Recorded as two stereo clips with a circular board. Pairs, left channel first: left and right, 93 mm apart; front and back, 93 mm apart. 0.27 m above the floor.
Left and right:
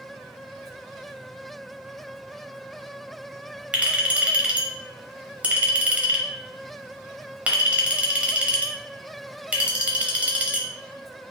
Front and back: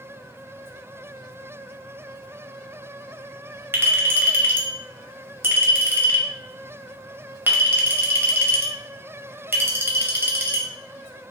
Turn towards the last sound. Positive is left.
turn(degrees=-150)